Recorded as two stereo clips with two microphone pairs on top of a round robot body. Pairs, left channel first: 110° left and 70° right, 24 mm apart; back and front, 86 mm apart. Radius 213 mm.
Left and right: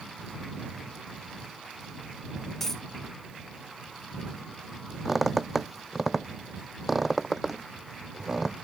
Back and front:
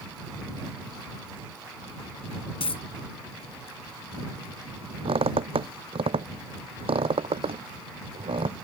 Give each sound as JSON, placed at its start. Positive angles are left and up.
{"t": 2.6, "sound": "a dropped coin", "azimuth_deg": -175}
{"t": 5.0, "sound": "a squeak", "azimuth_deg": 15}